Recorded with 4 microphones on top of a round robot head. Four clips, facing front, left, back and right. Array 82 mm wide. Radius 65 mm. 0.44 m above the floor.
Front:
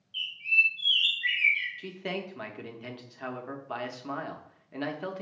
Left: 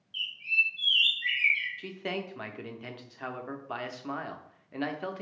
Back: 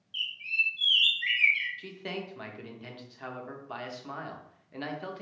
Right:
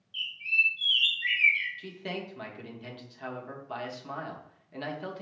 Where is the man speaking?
65° left, 0.8 m.